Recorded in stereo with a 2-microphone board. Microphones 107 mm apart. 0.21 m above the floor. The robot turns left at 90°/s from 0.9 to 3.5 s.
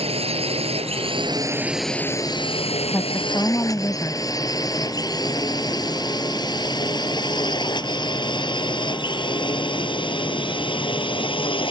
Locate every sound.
0.0 s a drone: 65° right (ahead or behind); by 11.7 s 50° left (ahead or behind)
2.9 s a woman speaking: 20° left (ahead or behind); by 4.2 s 30° left (ahead or behind)